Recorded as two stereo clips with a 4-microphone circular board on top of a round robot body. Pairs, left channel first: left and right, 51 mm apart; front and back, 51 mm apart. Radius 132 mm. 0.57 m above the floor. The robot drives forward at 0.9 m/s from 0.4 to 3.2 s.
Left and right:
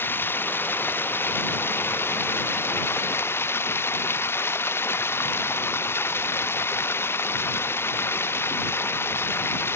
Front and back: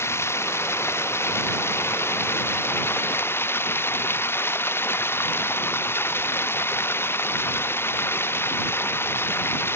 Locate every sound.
0.0 s running water: 40° left; by 9.8 s 45° left